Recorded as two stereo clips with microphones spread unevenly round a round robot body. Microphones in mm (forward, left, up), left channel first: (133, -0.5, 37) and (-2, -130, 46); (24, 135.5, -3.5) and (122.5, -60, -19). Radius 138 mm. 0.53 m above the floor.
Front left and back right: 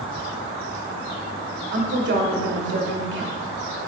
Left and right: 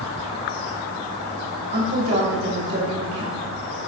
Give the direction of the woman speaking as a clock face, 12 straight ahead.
4 o'clock.